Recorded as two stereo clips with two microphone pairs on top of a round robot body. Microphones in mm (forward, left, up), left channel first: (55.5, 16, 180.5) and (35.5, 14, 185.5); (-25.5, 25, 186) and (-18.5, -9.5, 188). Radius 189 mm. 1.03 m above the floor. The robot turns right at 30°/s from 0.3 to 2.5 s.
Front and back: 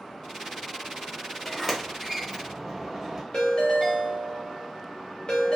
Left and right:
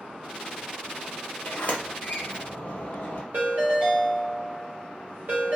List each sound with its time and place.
1.4 s a sliding door: 70° left, 1.0 m; by 3.2 s 105° left, 1.0 m
3.3 s a ringtone: 40° right, 1.0 m